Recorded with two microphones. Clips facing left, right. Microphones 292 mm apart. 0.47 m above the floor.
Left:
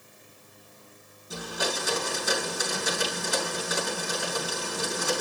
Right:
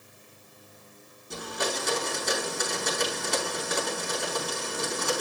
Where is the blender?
5° left (ahead or behind), 4.5 m.